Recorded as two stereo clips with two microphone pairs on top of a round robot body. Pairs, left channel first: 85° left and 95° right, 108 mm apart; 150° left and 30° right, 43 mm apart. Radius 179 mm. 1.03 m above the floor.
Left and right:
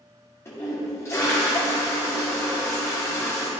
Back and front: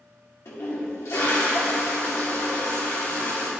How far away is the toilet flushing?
About 1.6 m.